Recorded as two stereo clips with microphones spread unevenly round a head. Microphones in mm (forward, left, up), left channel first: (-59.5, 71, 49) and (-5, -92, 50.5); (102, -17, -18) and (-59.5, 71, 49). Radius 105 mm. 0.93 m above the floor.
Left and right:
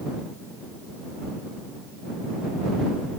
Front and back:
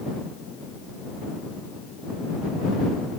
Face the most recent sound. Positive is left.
No sound to turn to.